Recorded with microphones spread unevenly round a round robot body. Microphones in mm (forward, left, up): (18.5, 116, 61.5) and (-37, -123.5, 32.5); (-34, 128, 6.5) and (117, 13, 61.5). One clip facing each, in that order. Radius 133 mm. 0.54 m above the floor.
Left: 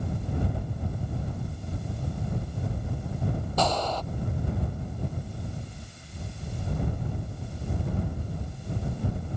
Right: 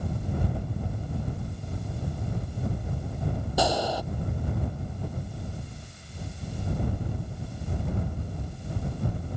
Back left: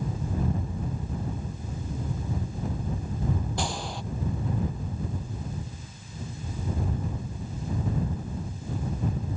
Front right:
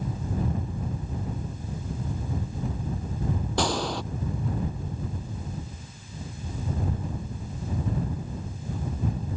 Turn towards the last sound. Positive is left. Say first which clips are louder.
# right 2 dB, front right 6 dB
turn(degrees=-20)